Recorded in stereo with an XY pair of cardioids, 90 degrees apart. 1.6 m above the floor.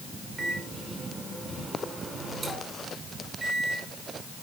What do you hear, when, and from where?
0.4 s a microwave: 35° right, 5 m